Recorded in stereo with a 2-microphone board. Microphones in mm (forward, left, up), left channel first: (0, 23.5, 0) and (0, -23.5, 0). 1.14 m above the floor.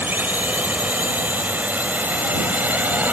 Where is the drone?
40° right (ahead or behind); by 3.1 s 35° right (ahead or behind).